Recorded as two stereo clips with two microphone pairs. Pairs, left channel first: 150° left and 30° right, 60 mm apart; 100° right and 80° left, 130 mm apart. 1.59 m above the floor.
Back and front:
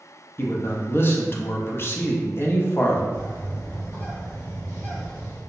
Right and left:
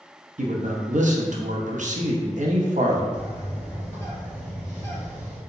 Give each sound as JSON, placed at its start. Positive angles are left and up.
{"t": 0.4, "sound": "a man speaking", "azimuth_deg": 100, "distance_m": 0.6}
{"t": 3.1, "sound": "a bird", "azimuth_deg": -160, "distance_m": 1.9}